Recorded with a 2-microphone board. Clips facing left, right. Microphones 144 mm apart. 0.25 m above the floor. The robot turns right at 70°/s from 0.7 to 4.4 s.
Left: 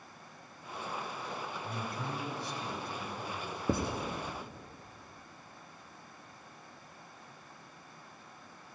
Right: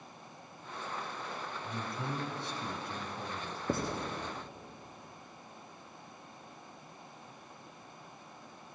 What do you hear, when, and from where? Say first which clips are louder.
1.6 s a man speaking: right 2 dB; 15° right (ahead or behind), 1.7 m; by 3.6 s 5° right (ahead or behind), 1.7 m
3.7 s writing: left 2 dB; 55° left (ahead or behind), 2 m; by 3.9 s 65° left (ahead or behind), 2 m